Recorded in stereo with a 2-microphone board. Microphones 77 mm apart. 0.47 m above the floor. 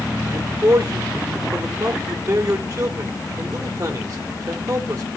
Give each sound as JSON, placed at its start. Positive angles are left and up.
{"t": 0.3, "sound": "a man speaking", "side_deg": -35, "distance_m": 1.8}